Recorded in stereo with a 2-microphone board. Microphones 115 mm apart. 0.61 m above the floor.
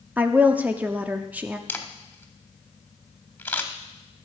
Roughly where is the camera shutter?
Centre.